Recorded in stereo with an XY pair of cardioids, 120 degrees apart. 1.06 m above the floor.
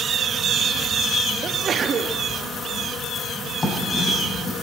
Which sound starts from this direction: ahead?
Writing, at 3.6 s.